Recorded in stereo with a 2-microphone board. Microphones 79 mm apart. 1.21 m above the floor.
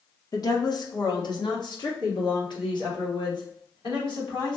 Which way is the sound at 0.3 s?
50° left (ahead or behind).